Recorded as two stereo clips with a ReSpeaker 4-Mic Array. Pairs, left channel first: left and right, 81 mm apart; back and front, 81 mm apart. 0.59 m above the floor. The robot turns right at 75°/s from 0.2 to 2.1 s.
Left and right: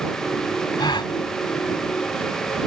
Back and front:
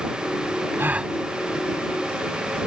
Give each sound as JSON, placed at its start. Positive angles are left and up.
{"t": 0.8, "sound": "a gasp", "azimuth_deg": 60}